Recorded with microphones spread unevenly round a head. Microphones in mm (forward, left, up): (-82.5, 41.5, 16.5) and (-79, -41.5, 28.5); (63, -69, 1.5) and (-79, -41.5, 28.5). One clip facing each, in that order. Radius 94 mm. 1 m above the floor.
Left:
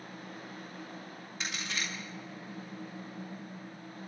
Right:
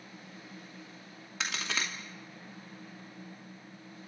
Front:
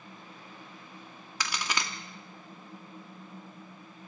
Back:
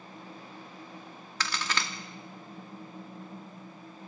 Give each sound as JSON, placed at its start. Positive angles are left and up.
{"t": 1.4, "sound": "a crack", "azimuth_deg": -85, "distance_m": 2.5}